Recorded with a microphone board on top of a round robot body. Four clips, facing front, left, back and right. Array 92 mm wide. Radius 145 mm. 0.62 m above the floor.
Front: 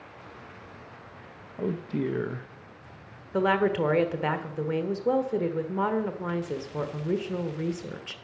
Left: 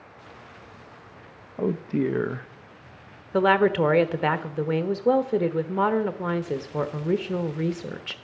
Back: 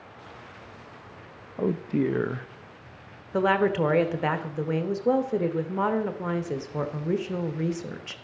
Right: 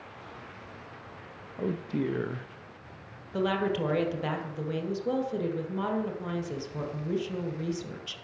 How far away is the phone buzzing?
I don't hear a phone buzzing.